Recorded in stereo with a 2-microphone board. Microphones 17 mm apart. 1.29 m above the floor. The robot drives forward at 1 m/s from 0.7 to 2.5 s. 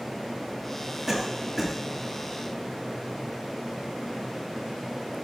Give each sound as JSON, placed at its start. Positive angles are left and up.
{"t": 1.1, "sound": "a cough", "side_deg": -5, "distance_m": 2.5}